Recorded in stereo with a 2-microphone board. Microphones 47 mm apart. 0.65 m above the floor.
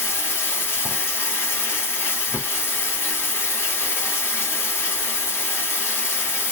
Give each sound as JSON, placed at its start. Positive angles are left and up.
{"t": 0.0, "sound": "running water", "side_deg": 50, "distance_m": 1.7}